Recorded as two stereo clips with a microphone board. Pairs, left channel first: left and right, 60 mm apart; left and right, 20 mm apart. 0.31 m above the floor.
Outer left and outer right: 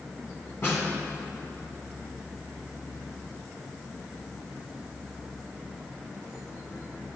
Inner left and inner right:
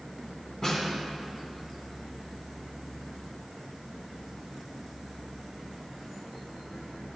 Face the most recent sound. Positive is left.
turn(degrees=40)  # may be behind; listen again after turning